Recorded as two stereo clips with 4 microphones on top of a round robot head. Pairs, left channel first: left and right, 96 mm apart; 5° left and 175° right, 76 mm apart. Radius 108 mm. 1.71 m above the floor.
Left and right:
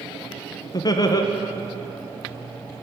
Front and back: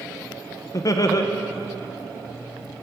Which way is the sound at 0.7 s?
45° left.